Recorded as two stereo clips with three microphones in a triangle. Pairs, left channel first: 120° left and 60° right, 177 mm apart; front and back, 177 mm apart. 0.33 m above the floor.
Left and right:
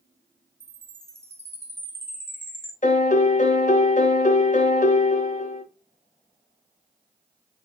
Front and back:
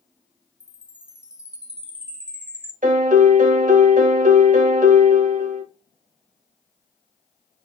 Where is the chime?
110° right, 0.8 m.